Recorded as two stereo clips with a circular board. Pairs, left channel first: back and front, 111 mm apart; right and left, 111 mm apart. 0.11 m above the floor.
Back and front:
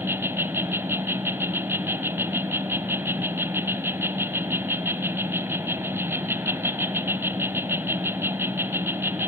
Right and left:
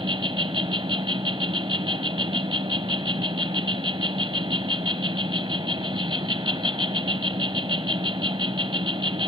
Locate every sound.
0.0 s an insect: 60° left, 0.9 m